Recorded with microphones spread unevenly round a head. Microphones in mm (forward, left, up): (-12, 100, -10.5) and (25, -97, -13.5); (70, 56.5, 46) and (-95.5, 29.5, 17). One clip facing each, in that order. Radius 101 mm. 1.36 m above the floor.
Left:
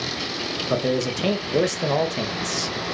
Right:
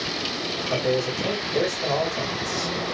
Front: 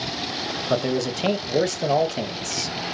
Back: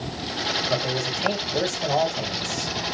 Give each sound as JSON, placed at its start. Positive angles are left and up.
{"t": 0.7, "sound": "a man speaking", "azimuth_deg": 60, "distance_m": 0.8}